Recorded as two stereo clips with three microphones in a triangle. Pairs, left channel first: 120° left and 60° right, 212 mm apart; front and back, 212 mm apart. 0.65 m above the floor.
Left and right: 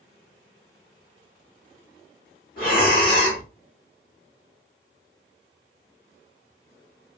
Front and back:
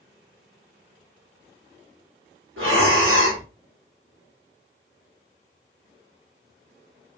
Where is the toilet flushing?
I don't hear a toilet flushing.